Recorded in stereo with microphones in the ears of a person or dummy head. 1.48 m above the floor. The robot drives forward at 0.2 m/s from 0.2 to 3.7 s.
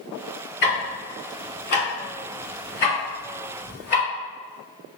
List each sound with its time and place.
0.6 s ticking: 50° left (ahead or behind), 1.8 m; by 4.0 s 45° left (ahead or behind), 2 m